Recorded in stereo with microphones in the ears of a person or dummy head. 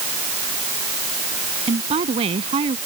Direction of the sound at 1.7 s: 30° right (ahead or behind).